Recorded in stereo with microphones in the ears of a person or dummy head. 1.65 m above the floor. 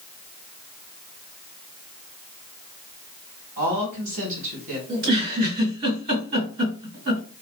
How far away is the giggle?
About 1.9 m.